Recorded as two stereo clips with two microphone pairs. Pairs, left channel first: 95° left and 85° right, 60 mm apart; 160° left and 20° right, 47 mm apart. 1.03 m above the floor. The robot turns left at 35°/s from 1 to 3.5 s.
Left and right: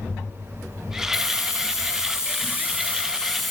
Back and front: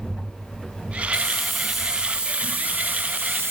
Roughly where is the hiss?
Left.